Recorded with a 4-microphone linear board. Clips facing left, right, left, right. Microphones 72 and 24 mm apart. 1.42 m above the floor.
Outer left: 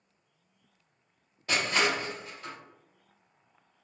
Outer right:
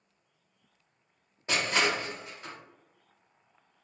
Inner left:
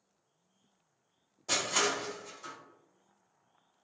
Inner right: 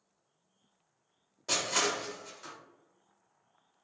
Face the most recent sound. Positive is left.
turn(degrees=-25)  # may be behind; listen again after turning